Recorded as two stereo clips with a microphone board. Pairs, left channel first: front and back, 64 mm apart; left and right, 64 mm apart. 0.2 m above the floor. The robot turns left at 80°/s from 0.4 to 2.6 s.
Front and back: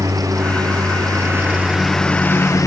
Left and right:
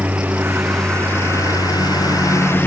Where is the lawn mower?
155° right; by 2.7 s 35° left.